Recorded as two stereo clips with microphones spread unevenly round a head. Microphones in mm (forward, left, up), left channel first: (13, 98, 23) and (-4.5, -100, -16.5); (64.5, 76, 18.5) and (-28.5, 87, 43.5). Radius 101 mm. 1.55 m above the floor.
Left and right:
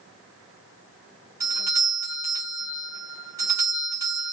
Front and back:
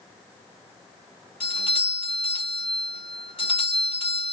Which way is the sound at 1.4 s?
20° right.